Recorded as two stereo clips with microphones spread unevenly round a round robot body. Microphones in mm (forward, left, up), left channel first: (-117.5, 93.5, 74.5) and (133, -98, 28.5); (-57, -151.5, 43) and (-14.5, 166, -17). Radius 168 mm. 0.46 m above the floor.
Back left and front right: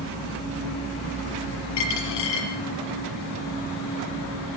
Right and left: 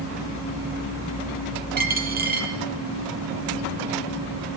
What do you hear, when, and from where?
1.8 s a dropped coin: 145° left, 5 m